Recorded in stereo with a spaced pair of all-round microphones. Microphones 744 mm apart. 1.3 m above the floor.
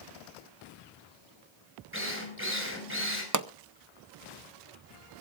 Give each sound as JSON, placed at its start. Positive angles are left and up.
{"t": 1.9, "sound": "a drill", "side_deg": -15, "distance_m": 5.0}
{"t": 3.3, "sound": "a pop", "side_deg": -25, "distance_m": 0.6}